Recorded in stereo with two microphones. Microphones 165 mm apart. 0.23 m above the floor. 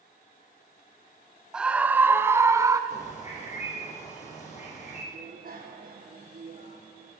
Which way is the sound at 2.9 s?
45° left (ahead or behind).